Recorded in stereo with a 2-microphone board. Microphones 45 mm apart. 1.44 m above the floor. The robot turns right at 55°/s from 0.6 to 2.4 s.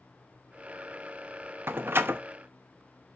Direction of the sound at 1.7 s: 60° right (ahead or behind).